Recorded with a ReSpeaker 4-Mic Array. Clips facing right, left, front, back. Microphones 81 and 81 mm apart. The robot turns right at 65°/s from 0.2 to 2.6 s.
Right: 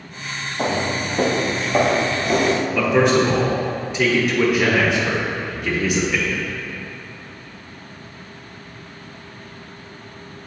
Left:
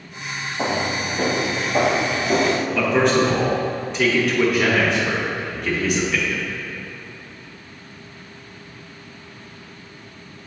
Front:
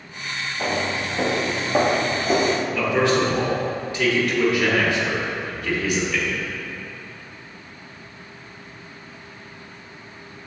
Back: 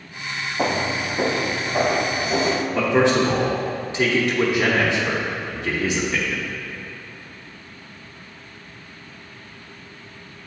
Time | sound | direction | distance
0.6 | footsteps | 175° right | 1.0 m
2.8 | a man speaking | 170° right | 0.8 m